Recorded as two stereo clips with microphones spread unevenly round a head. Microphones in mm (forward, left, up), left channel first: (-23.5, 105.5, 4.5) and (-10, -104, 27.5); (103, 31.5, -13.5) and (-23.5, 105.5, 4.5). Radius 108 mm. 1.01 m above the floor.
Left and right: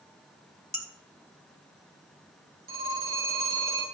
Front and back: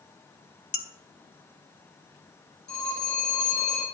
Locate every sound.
0.7 s dishes clattering: 5° left, 2.0 m
2.7 s a phone ringing: 65° right, 5 m